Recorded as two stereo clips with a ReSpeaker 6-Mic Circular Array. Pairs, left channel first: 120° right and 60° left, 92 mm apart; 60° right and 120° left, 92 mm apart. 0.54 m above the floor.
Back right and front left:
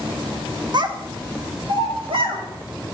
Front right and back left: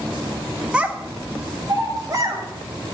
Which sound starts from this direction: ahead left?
A child speaking, at 0.7 s.